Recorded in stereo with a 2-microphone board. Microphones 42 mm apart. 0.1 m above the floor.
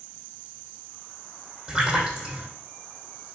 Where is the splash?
15° right (ahead or behind), 4 m.